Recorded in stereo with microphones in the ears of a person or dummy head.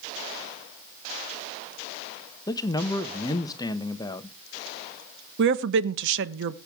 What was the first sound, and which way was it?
A man speaking, 20° left (ahead or behind).